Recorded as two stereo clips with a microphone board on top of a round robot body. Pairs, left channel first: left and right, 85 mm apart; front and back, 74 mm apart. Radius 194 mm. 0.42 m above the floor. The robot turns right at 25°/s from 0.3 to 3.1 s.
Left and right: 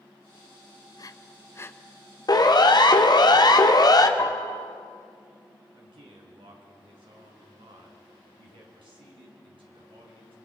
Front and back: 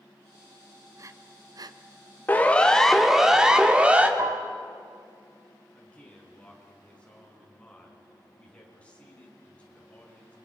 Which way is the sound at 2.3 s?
60° left.